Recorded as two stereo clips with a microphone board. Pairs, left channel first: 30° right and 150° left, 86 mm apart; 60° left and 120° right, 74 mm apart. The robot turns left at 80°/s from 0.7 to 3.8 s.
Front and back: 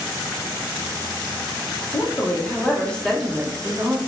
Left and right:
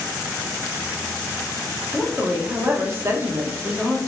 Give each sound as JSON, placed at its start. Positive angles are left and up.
{"t": 1.9, "sound": "a woman speaking", "azimuth_deg": -20, "distance_m": 0.7}